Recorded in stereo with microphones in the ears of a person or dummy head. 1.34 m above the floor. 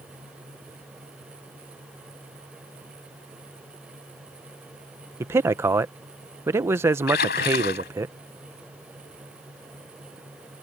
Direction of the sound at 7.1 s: 60° left (ahead or behind).